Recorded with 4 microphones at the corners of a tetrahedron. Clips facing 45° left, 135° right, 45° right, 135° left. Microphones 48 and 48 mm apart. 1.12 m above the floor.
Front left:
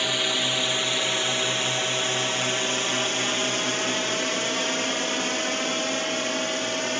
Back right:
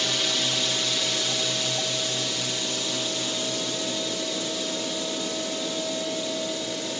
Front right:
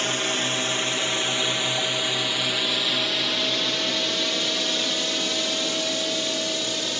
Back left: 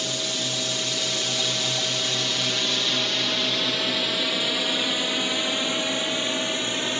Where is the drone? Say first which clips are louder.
Front left 2 dB, front right 4 dB; 20° right; by 7.0 s 75° left.